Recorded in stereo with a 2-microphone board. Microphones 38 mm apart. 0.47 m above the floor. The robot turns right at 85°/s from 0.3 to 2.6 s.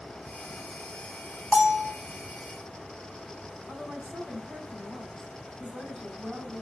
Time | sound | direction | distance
1.5 | a bell | 140° right | 2.0 m
3.7 | a woman speaking | 20° right (ahead or behind) | 3 m